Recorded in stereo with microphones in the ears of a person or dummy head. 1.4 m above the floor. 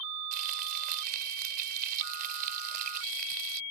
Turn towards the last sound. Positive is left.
turn(degrees=-45)  # may be behind; listen again after turning